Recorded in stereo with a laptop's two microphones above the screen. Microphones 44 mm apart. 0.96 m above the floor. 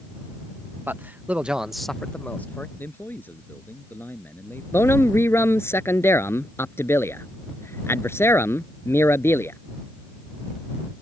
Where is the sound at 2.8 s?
50° left (ahead or behind).